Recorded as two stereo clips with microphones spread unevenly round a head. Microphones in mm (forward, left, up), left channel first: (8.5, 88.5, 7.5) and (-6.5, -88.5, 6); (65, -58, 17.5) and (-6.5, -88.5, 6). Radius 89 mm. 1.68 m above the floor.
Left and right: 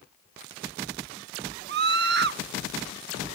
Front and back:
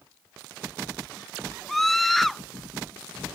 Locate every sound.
1.7 s a scream: 65° right